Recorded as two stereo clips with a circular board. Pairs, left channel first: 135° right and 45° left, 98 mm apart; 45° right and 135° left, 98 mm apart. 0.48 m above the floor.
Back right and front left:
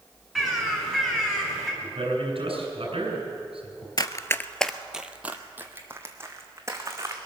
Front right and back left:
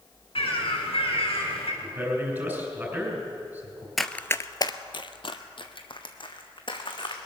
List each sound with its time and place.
0.3 s a bird: 50° right, 3.5 m
1.8 s a man speaking: 65° left, 4 m
4.0 s running footsteps: 135° right, 0.6 m; by 7.2 s 15° right, 2.5 m